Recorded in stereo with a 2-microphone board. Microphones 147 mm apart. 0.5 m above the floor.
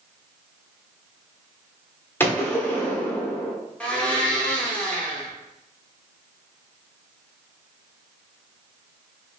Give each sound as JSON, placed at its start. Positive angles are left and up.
{"t": 2.2, "sound": "a gunshot", "side_deg": 15, "distance_m": 1.0}
{"t": 3.8, "sound": "a blender", "side_deg": 10, "distance_m": 1.0}